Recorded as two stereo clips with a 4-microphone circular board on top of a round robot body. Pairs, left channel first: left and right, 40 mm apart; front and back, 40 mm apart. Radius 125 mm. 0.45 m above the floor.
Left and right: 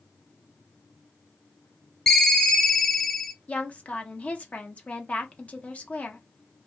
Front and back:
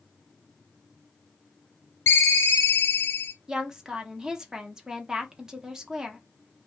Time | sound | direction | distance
2.1 | a ringtone | 10° left | 0.6 m
3.5 | a woman speaking | 115° left | 0.9 m